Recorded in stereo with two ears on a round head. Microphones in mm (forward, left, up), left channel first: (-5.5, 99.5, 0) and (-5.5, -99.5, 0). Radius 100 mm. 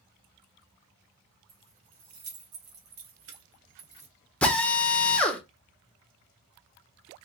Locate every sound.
1.5 s keys jangling: 70° right (ahead or behind), 1.9 m; by 4.1 s 25° right (ahead or behind), 0.9 m
4.4 s a drill: 5° left (ahead or behind), 0.7 m